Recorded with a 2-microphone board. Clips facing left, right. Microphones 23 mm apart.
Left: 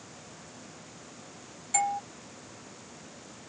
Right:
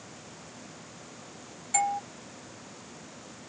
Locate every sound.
1.7 s a doorbell: centre (ahead or behind)